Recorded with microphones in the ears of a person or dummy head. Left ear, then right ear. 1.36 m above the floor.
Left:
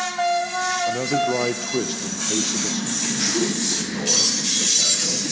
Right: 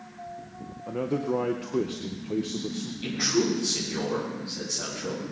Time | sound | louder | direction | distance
0.9 | a man speaking | left 8 dB | 25° left (ahead or behind) | 0.7 m
3.0 | a man speaking | left 1 dB | 20° left (ahead or behind) | 7.5 m